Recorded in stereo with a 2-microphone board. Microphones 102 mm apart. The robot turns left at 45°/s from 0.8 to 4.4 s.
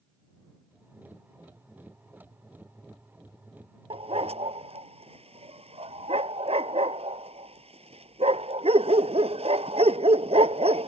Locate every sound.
3.9 s a dog barking: 70° right (ahead or behind); by 10.9 s 85° right